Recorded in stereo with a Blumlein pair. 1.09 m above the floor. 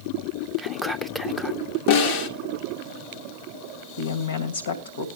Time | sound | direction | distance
0.6 | whispering | 5° left | 1.0 m
1.9 | a snare drum | 50° left | 1.7 m
4.0 | a woman speaking | 65° left | 2.5 m